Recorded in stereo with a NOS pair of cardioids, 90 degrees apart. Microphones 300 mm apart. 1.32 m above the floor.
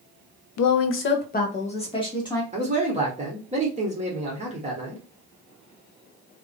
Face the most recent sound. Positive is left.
turn(degrees=-25)